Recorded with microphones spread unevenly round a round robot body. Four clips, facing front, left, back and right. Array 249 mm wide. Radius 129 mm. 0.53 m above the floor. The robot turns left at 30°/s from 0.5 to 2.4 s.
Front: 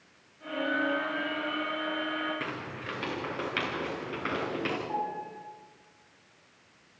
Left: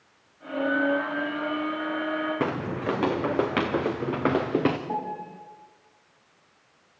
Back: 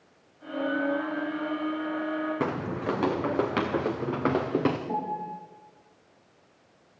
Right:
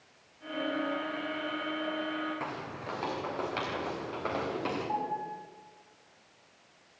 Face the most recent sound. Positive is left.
turn(degrees=145)